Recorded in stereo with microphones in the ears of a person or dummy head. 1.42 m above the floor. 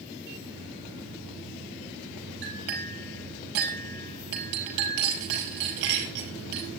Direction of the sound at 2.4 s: 65° right (ahead or behind).